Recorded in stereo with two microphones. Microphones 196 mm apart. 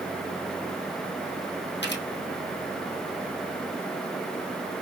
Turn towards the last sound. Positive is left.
turn(degrees=65)  # may be behind; listen again after turning